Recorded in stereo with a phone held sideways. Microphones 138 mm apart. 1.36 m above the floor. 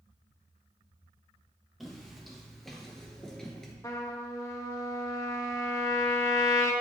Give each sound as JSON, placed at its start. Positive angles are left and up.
{"t": 1.8, "sound": "footsteps", "side_deg": 0, "distance_m": 1.7}
{"t": 3.8, "sound": "a trumpet", "side_deg": 25, "distance_m": 0.9}